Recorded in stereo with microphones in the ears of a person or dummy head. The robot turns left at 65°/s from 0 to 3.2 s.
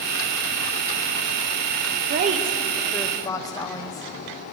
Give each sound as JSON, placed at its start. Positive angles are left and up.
{"t": 2.1, "sound": "a woman speaking", "azimuth_deg": -130, "distance_m": 1.0}